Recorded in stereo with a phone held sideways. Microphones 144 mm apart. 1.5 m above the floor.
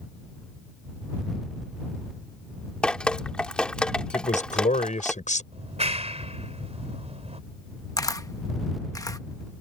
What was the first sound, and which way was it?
Dripping, 5° left (ahead or behind).